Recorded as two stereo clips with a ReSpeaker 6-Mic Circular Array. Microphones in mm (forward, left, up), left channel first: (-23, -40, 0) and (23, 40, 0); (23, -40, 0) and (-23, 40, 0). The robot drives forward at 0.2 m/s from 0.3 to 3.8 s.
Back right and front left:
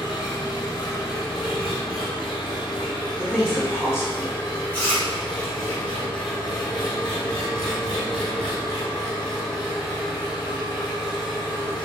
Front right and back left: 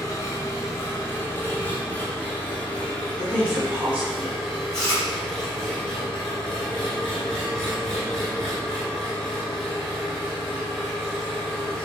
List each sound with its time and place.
0.0 s an engine running: 105° right, 0.8 m; by 11.9 s 140° right, 1.2 m
3.2 s a woman speaking: 170° right, 1.5 m
4.7 s chewing: 135° right, 1.7 m